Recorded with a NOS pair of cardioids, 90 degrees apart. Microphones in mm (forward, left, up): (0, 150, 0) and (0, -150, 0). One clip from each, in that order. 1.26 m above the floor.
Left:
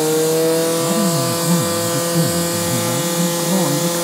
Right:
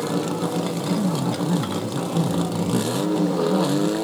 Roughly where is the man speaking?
Ahead left.